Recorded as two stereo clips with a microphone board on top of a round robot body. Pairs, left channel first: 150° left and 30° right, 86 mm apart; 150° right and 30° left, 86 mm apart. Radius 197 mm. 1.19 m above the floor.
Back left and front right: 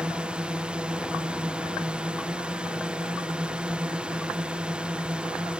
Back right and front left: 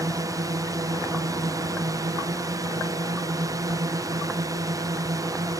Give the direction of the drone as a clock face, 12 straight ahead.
11 o'clock.